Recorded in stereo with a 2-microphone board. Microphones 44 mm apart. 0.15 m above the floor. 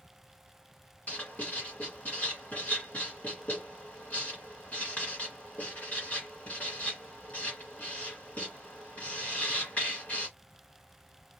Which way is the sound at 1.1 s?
35° left (ahead or behind).